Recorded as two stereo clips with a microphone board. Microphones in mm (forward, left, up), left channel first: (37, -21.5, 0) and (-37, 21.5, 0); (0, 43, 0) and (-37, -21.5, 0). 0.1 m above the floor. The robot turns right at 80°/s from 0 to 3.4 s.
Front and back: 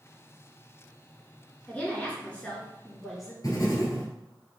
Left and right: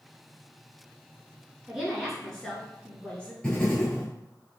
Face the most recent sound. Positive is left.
turn(degrees=-10)